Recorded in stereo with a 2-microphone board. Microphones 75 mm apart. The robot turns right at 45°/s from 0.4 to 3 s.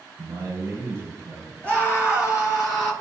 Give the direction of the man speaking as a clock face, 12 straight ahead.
2 o'clock.